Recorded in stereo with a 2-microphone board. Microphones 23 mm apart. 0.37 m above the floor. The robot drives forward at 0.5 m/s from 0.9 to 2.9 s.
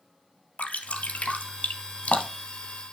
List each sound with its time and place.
0.6 s dripping: 85° left, 1.7 m; by 2.5 s 65° left (ahead or behind), 1.9 m